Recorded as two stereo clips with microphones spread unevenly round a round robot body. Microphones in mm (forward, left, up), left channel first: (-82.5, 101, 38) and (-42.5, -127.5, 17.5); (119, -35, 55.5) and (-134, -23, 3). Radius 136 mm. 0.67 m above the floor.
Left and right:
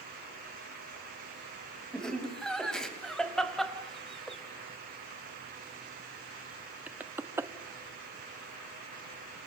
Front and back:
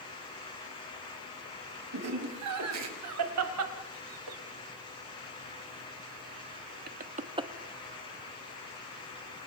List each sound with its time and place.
1.9 s laughter: 170° right, 5.5 m; by 7.5 s 140° right, 1.1 m